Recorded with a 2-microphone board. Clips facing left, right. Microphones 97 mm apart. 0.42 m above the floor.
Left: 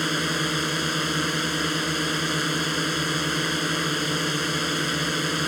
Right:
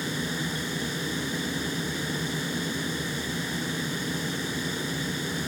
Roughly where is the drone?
Left.